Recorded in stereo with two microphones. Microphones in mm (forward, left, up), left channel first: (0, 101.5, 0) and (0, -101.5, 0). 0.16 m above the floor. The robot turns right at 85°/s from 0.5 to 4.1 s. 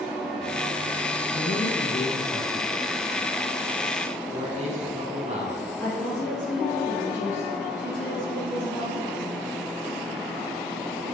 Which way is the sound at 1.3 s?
20° left (ahead or behind).